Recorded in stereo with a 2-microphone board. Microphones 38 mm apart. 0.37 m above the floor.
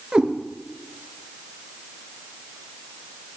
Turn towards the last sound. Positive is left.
turn(degrees=-15)  # may be behind; listen again after turning